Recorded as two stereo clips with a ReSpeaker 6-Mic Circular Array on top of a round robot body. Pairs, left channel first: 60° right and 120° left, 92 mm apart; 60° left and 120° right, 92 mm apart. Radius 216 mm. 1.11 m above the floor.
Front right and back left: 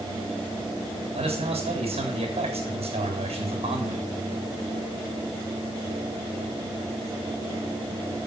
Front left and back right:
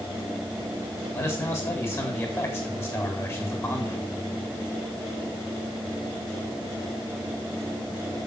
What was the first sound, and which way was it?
A man speaking, 120° left.